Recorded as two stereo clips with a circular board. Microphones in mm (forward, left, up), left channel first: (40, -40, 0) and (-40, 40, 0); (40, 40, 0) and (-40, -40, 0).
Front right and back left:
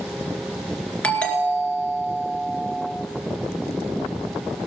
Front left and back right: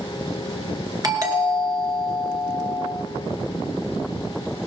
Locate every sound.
1.0 s a doorbell: 115° right, 2.5 m